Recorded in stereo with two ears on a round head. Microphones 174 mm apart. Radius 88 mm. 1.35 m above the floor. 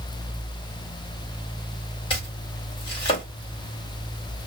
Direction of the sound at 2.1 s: 30° left (ahead or behind).